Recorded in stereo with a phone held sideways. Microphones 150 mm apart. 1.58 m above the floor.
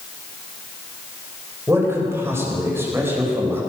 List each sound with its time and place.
1.7 s a man speaking: 15° right (ahead or behind), 8.5 m